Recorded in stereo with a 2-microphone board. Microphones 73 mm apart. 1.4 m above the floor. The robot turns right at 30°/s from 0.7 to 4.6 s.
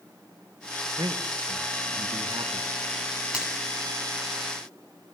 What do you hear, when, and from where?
1.0 s a man speaking: 70° right (ahead or behind), 1.8 m; by 2.7 s 60° right (ahead or behind), 1.8 m
3.3 s a finger snap: 15° right (ahead or behind), 9.5 m; by 3.5 s 20° right (ahead or behind), 9.5 m